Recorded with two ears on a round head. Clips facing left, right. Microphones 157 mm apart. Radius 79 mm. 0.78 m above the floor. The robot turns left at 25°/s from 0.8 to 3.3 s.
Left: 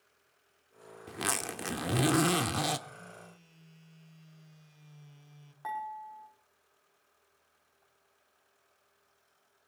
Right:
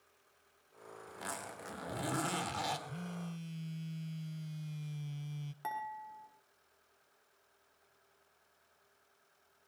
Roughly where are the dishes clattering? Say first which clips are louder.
Left 4 dB; right.